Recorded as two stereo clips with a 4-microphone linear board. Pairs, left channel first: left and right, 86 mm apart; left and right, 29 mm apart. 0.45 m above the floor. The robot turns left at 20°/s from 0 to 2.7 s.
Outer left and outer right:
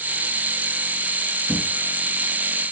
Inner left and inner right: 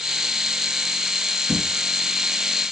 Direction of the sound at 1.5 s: 55° left (ahead or behind).